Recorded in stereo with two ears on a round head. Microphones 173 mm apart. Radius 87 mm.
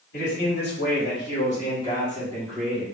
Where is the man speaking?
65° left (ahead or behind), 2.5 m; by 2.8 s 10° right (ahead or behind), 1.6 m.